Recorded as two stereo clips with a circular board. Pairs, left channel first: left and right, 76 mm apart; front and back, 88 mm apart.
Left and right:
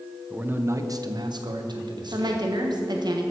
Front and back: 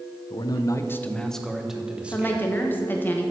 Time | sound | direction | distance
0.3 | a man speaking | 15° right | 0.9 m
2.1 | a woman speaking | 65° right | 1.5 m